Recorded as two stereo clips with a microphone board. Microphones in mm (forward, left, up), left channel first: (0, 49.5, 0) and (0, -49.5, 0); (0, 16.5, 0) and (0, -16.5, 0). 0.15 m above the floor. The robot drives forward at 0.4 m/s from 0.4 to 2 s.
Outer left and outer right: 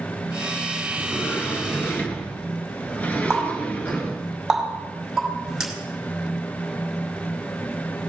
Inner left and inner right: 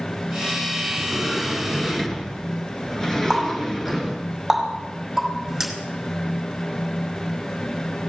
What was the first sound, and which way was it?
A sliding door, 20° left (ahead or behind).